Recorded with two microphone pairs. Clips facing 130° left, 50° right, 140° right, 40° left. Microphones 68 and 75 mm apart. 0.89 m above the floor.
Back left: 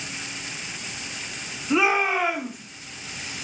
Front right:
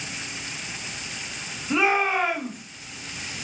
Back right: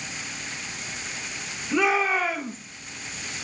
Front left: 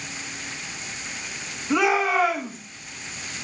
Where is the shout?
40° left, 7 m.